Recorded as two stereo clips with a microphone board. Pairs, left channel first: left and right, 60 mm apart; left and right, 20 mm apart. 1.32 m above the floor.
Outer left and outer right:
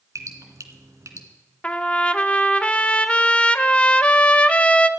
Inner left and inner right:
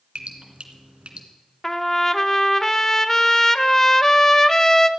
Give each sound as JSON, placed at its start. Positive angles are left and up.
{"t": 0.1, "sound": "dripping", "side_deg": -55, "distance_m": 2.5}
{"t": 1.6, "sound": "a trumpet", "side_deg": 20, "distance_m": 0.7}